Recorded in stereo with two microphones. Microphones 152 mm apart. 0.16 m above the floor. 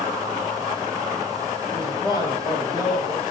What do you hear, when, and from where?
1.7 s a man speaking: 25° left (ahead or behind), 6.5 m